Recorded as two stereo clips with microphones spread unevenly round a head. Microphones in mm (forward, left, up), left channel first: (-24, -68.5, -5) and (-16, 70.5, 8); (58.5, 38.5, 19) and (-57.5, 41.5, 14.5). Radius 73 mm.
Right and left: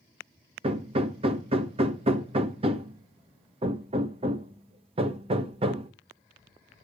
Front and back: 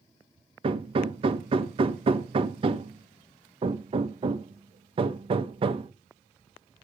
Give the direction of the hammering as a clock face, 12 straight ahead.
7 o'clock.